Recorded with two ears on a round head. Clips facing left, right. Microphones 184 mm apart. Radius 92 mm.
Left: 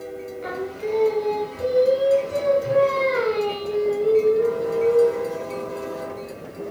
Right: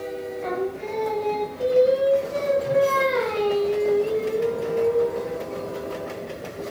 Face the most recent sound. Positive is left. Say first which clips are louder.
# even
turn(degrees=20)  # may be behind; listen again after turning